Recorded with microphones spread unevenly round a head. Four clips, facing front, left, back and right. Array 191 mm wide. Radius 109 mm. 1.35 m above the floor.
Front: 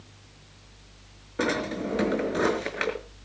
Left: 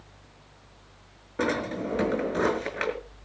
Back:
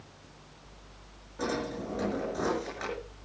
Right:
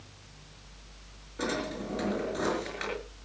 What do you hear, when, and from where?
1.4 s a drawer: 20° left, 5.5 m